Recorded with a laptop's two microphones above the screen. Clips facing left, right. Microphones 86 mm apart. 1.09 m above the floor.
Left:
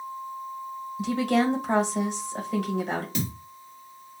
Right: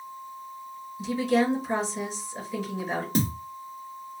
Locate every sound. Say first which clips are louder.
1.0 s a woman speaking: even; 60° left (ahead or behind), 1.1 m
3.1 s a thud: right 5 dB; 40° right (ahead or behind), 0.6 m